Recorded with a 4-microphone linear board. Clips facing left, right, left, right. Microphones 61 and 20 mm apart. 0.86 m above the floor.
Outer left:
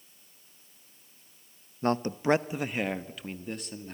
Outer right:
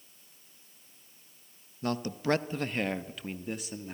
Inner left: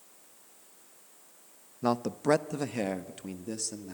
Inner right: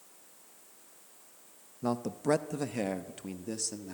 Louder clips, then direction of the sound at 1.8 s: Outer left 4 dB, inner left 3 dB; 35° left (ahead or behind).